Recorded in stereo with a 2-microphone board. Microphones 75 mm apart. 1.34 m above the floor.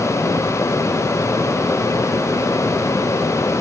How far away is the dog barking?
No dog barking in this recording.